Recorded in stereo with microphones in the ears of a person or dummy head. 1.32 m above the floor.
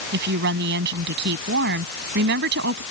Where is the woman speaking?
60° right (ahead or behind).